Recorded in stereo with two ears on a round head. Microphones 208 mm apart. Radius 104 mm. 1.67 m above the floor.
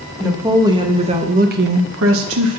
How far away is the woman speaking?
About 2.0 m.